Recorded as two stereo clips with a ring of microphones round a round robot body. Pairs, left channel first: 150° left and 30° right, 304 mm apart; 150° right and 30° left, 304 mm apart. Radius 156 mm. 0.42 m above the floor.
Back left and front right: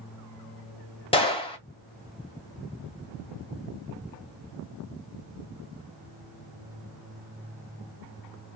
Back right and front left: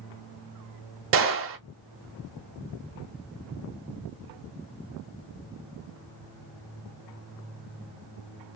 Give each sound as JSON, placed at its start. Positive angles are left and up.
{"t": 1.1, "sound": "a gunshot", "azimuth_deg": 75, "distance_m": 1.2}